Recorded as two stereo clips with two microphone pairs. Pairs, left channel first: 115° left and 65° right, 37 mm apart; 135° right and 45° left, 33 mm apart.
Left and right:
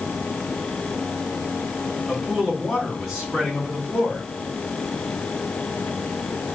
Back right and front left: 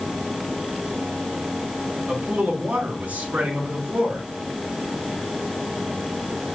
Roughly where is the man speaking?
Ahead.